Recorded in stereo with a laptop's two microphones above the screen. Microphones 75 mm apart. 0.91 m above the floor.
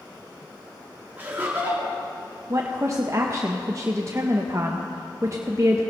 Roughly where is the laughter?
Right.